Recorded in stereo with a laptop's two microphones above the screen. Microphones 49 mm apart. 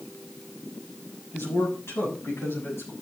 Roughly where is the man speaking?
Left.